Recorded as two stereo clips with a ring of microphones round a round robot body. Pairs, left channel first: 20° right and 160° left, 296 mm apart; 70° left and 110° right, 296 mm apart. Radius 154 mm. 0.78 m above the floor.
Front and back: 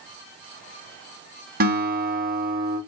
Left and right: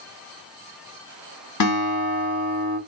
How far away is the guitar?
About 1.5 m.